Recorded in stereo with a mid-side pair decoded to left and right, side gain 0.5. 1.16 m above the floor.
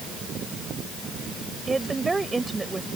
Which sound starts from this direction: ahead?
A woman speaking, at 1.7 s.